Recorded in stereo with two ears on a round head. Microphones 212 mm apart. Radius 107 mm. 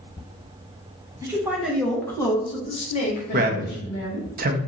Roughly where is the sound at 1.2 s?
Centre.